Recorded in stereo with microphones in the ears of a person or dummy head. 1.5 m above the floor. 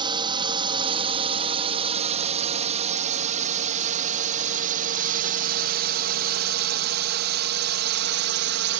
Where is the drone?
25° right (ahead or behind); by 8.8 s 65° right (ahead or behind).